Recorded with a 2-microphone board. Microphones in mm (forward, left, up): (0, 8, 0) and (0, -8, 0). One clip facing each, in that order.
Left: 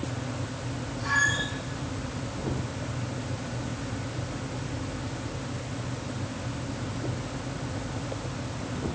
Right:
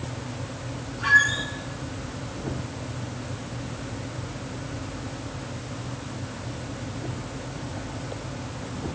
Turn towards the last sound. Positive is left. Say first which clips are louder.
# right 6 dB
turn(degrees=-90)